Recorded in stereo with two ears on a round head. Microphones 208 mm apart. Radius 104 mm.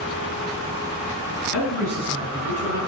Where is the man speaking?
75° right (ahead or behind), 5 m; by 2.8 s 80° right, 5.5 m.